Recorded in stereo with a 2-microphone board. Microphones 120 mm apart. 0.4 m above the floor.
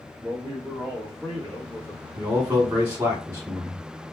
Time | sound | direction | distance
0.2 | a man speaking | 15° right (ahead or behind) | 1.3 m
2.2 | a man speaking | 15° right (ahead or behind) | 1.2 m